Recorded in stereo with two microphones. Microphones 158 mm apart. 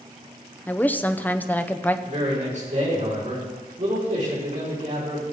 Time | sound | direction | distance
0.7 | a woman speaking | 10° left (ahead or behind) | 0.7 m
2.0 | a man speaking | 55° right (ahead or behind) | 5.5 m